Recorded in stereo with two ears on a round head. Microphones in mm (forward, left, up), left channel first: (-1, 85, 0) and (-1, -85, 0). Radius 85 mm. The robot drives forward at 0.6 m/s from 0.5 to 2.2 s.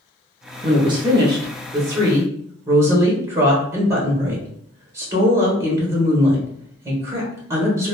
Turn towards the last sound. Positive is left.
turn(degrees=-15)  # may be behind; listen again after turning